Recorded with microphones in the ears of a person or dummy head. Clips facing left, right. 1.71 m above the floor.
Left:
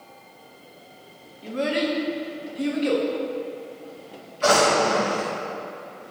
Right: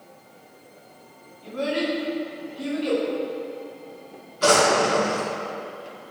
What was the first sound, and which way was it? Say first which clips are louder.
A child speaking: left 1 dB; 30° left (ahead or behind).